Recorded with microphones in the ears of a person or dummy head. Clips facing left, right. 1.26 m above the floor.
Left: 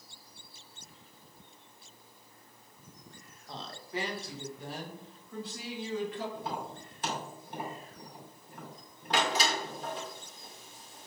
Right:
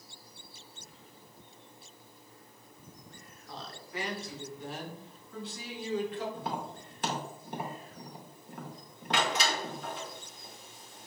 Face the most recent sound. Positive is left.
turn(degrees=35)  # may be behind; listen again after turning